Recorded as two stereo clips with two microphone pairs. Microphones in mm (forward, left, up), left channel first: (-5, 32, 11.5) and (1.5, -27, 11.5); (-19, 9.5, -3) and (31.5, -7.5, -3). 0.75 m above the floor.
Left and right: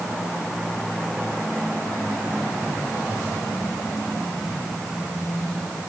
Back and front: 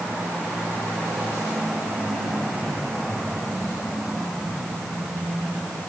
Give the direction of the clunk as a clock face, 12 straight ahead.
No clunk in this recording.